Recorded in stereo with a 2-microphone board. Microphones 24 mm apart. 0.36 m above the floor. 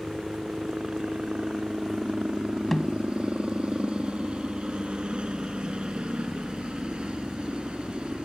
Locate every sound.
0.0 s a helicopter: 45° right (ahead or behind)
2.7 s a snare drum: 10° left (ahead or behind)